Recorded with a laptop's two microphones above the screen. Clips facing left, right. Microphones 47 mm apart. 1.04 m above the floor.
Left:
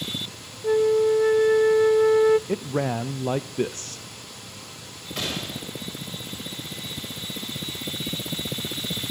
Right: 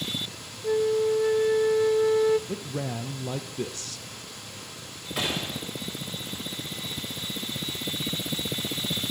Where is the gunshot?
5° right (ahead or behind), 6 m.